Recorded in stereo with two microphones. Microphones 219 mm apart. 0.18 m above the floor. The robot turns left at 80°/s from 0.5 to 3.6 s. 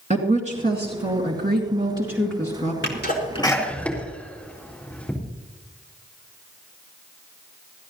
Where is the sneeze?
60° left (ahead or behind), 4 m; by 5.1 s 5° left (ahead or behind), 4 m.